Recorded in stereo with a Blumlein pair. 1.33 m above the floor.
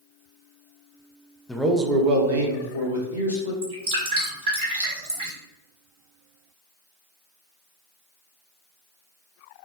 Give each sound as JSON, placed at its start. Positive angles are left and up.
{"t": 1.5, "sound": "a man speaking", "azimuth_deg": 10, "distance_m": 0.7}
{"t": 3.6, "sound": "dripping", "azimuth_deg": -60, "distance_m": 1.5}